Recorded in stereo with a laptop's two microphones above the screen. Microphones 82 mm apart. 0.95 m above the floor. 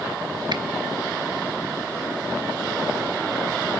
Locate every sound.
0.5 s a finger snap: 60° right (ahead or behind), 1.0 m